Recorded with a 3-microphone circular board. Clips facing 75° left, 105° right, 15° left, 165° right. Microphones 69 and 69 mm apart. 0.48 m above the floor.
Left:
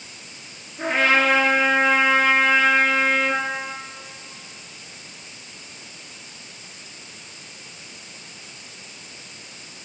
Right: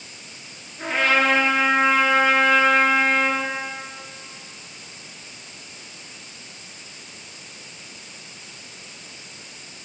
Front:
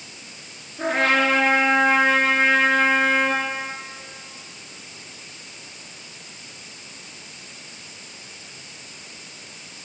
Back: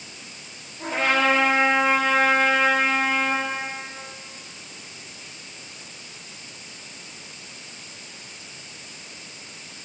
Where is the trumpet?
Straight ahead, 8.5 m.